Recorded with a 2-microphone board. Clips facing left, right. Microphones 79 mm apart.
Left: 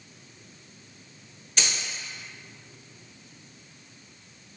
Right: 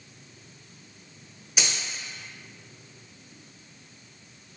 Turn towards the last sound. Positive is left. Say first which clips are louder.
# even
turn(degrees=-10)  # may be behind; listen again after turning